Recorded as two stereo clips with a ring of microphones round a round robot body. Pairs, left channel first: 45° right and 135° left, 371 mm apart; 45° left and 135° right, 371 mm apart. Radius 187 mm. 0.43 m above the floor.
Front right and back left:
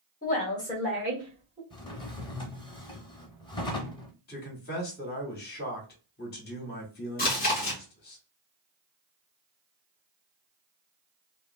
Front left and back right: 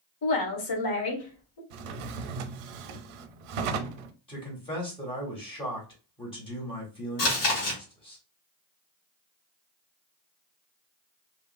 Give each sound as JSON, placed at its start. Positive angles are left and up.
{"t": 0.2, "sound": "a woman speaking", "azimuth_deg": 15, "distance_m": 1.2}
{"t": 1.7, "sound": "a drawer", "azimuth_deg": -125, "distance_m": 0.5}
{"t": 4.3, "sound": "a man speaking", "azimuth_deg": -15, "distance_m": 1.1}
{"t": 7.2, "sound": "chewing", "azimuth_deg": 20, "distance_m": 1.8}